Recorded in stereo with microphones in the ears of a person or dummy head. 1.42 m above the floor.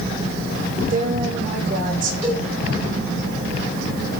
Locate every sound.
0.9 s a woman speaking: 50° right (ahead or behind), 4.5 m
2.2 s a cowbell: 40° right (ahead or behind), 8 m